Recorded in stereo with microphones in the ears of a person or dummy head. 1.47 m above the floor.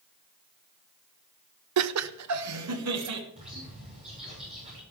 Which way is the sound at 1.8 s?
85° right.